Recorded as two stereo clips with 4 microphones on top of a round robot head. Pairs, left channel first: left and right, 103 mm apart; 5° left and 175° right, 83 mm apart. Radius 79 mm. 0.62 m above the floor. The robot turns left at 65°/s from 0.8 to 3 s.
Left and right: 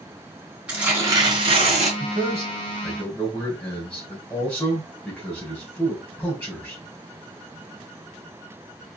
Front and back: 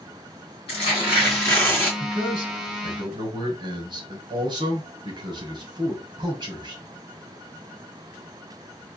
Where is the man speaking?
125° right, 2.5 m; by 6.8 s 170° left, 2.5 m.